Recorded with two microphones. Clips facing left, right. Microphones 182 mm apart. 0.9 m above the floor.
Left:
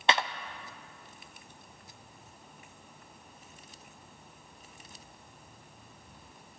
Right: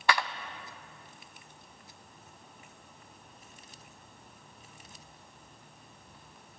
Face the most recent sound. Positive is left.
turn(degrees=25)  # may be behind; listen again after turning